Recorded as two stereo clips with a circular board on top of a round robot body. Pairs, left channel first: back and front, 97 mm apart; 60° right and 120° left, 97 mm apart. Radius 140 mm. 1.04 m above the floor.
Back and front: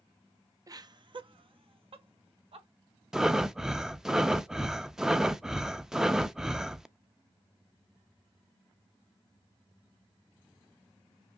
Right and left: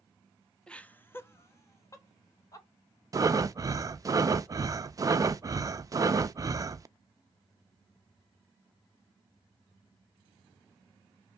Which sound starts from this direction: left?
Breathing, at 3.1 s.